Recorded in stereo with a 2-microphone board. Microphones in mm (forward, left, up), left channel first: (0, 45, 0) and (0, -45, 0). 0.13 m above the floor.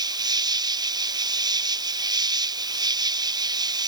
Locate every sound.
0.0 s an insect: 50° right (ahead or behind)